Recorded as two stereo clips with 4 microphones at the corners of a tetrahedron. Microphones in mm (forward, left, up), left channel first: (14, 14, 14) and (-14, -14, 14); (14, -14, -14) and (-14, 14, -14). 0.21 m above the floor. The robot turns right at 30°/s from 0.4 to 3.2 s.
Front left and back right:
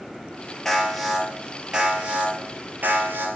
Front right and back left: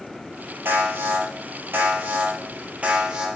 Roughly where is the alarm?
Behind left.